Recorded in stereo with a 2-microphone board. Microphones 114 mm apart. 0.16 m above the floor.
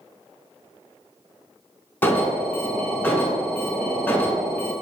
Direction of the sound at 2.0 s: 15° left (ahead or behind).